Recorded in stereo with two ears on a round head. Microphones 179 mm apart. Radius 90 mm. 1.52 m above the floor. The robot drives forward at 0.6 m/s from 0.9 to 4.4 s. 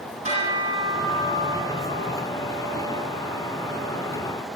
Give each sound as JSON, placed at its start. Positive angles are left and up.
{"t": 0.2, "sound": "a bell", "side_deg": -35, "distance_m": 8.5}